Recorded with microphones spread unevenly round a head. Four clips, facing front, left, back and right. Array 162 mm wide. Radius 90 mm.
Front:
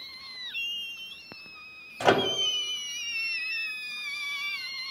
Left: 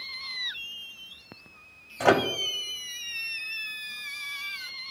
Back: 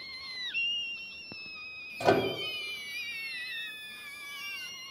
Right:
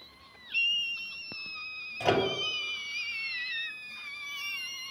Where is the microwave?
20° left, 0.9 m.